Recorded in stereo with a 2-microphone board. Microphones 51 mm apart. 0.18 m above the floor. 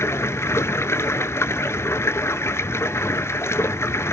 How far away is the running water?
About 1.0 m.